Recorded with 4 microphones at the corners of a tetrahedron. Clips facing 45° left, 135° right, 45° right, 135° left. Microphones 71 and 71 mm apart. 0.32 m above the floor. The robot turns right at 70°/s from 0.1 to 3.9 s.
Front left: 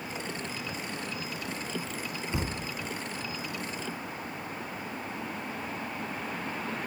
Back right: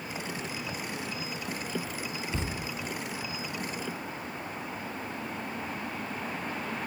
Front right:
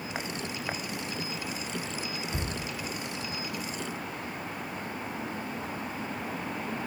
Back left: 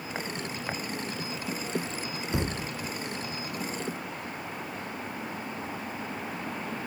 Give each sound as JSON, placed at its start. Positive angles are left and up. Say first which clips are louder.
{"t": 2.3, "sound": "a thud", "louder": "front left 3 dB, back left 4 dB", "azimuth_deg": 120, "distance_m": 1.0}